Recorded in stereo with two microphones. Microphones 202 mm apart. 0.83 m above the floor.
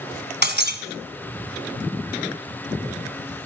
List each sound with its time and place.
0.4 s breaking glass: 65° right (ahead or behind), 1.3 m